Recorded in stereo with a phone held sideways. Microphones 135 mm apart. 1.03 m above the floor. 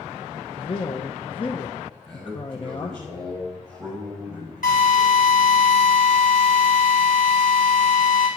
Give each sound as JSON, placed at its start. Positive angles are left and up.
{"t": 0.6, "sound": "a man speaking", "side_deg": 40, "distance_m": 0.9}
{"t": 2.1, "sound": "a man speaking", "side_deg": 0, "distance_m": 6.5}
{"t": 4.6, "sound": "a drill", "side_deg": 85, "distance_m": 4.5}